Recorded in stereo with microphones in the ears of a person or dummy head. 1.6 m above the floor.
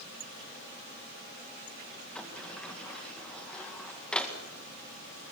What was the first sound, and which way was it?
A sliding door, 5° left (ahead or behind).